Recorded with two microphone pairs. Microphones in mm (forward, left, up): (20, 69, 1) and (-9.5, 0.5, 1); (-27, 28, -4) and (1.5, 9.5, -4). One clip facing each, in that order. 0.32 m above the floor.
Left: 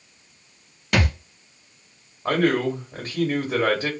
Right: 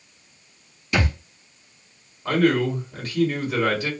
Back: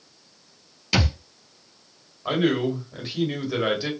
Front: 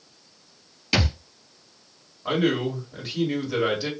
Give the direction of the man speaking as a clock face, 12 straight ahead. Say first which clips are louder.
Right 1 dB, back 1 dB; 10 o'clock.